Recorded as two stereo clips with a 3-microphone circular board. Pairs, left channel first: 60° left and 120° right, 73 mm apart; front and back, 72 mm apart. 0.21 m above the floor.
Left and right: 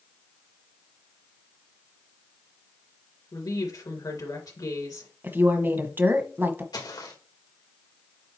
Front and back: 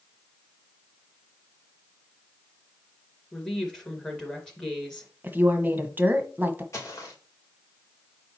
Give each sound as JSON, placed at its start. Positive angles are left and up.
{"t": 3.3, "sound": "a woman speaking", "azimuth_deg": 80, "distance_m": 2.5}
{"t": 5.2, "sound": "a woman speaking", "azimuth_deg": -150, "distance_m": 1.2}
{"t": 6.7, "sound": "footsteps", "azimuth_deg": 50, "distance_m": 3.5}